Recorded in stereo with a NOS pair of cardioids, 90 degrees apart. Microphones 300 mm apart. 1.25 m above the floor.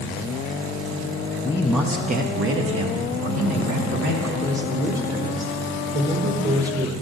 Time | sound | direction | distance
1.4 | a man speaking | 20° left | 0.7 m
4.4 | a man speaking | 25° right | 1.2 m